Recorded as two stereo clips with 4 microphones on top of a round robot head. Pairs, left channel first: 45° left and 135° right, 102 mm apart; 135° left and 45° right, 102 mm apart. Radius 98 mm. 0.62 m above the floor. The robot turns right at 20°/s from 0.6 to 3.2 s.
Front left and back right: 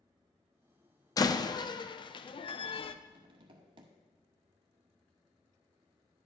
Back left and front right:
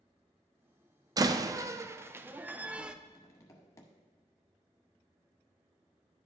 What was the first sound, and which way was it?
A door slam, straight ahead.